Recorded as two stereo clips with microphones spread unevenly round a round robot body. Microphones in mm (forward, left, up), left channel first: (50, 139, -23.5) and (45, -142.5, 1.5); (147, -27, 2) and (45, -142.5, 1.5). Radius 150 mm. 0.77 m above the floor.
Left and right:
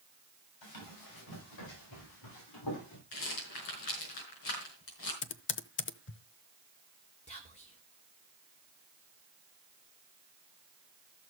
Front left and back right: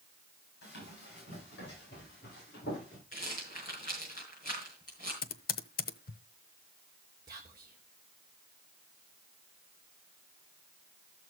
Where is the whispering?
155° left, 2.5 m.